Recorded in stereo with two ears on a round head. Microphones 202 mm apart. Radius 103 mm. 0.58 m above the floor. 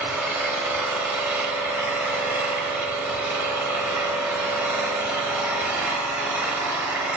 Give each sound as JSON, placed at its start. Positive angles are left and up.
{"t": 0.0, "sound": "an engine running", "side_deg": -5, "distance_m": 0.9}